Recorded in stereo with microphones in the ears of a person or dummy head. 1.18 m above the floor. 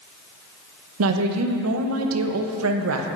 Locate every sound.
1.0 s a woman speaking: 85° right, 0.7 m